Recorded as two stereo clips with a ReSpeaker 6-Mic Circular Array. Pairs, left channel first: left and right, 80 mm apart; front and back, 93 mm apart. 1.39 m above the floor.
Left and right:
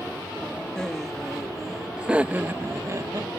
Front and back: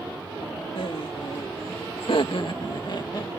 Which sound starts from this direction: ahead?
Laughter, at 0.8 s.